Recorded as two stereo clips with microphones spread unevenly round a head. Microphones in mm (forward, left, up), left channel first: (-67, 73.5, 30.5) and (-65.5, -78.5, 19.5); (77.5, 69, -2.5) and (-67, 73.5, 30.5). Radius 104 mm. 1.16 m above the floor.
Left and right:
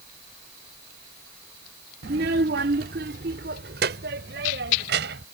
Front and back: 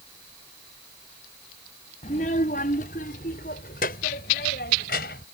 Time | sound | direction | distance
2.0 | a child speaking | 55° right | ?